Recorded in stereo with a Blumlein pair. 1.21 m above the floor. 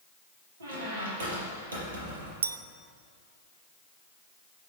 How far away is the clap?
I don't hear a clap.